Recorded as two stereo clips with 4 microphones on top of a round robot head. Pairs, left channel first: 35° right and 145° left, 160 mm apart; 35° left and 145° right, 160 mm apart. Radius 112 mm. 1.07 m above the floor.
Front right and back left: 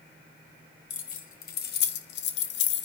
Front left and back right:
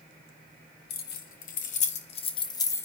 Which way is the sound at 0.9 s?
5° left.